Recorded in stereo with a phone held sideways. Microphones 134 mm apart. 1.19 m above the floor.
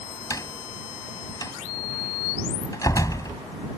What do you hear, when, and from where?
0.3 s a door slam: 25° left (ahead or behind)